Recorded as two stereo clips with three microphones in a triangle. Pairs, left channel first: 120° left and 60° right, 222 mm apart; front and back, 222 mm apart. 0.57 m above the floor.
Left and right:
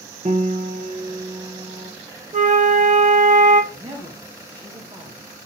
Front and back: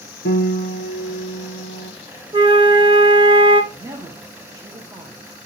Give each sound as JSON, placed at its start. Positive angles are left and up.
{"t": 0.2, "sound": "a piano", "azimuth_deg": -5, "distance_m": 0.6}
{"t": 2.3, "sound": "a flute", "azimuth_deg": -110, "distance_m": 0.6}
{"t": 3.7, "sound": "a man speaking", "azimuth_deg": -115, "distance_m": 0.7}